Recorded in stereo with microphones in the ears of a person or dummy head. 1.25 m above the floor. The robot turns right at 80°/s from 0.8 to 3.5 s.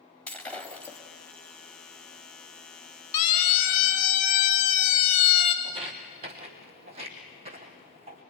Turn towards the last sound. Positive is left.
turn(degrees=-40)  # may be behind; listen again after turning